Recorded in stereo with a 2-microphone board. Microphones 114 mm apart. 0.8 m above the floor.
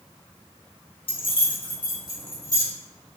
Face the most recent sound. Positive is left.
turn(degrees=35)  # may be behind; listen again after turning